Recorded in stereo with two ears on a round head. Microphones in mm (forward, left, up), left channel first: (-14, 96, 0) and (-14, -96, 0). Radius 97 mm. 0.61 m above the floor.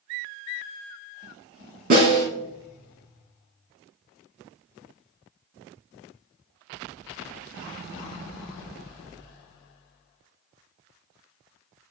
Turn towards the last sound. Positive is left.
turn(degrees=-45)  # may be behind; listen again after turning